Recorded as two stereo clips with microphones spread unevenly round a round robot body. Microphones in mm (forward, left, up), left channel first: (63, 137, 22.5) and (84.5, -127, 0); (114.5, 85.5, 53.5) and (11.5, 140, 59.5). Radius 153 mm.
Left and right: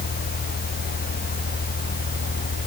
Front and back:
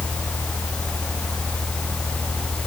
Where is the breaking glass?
No breaking glass in this recording.